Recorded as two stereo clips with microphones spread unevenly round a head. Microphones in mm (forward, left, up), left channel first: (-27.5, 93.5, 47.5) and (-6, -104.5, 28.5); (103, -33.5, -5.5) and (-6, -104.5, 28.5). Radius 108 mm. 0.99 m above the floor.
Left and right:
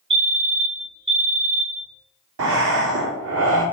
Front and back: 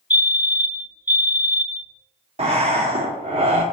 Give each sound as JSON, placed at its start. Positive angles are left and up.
{"t": 0.1, "sound": "a fire alarm", "azimuth_deg": -55, "distance_m": 1.7}
{"t": 2.4, "sound": "breathing", "azimuth_deg": -100, "distance_m": 2.0}